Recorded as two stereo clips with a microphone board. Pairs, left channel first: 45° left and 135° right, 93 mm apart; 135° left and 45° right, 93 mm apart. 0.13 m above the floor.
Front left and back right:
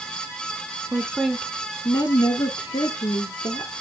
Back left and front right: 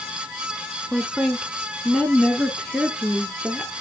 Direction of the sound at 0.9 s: 140° right.